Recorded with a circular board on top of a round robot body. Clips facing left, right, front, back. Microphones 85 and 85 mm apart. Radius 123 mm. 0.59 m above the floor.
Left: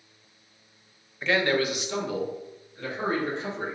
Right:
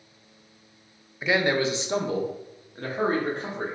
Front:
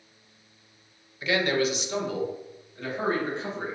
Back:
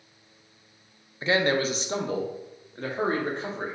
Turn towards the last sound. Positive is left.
turn(degrees=-130)